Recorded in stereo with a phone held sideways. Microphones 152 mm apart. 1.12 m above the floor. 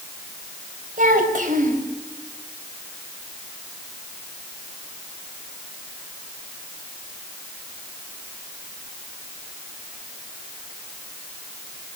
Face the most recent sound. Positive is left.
turn(degrees=-60)  # may be behind; listen again after turning